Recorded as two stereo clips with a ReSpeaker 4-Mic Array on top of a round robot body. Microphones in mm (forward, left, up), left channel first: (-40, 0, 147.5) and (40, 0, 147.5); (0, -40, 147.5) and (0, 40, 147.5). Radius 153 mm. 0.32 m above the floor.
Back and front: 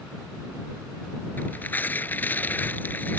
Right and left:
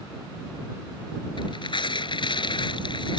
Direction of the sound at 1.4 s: 110° right.